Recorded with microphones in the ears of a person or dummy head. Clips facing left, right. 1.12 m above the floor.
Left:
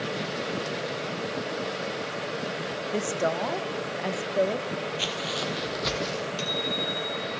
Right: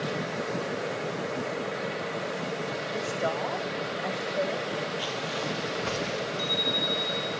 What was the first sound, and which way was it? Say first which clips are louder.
A woman speaking: left 4 dB; 40° left (ahead or behind).